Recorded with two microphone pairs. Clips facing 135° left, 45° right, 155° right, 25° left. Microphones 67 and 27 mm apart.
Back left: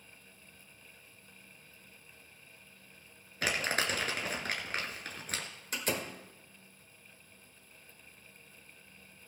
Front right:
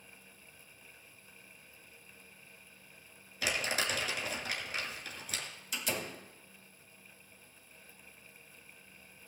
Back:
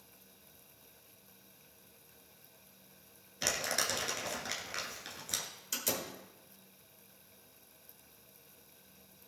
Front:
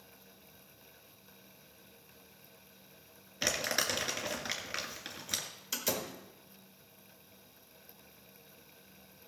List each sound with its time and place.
3.4 s crumpling: 95° left, 2 m
5.7 s a door slam: 95° left, 1.9 m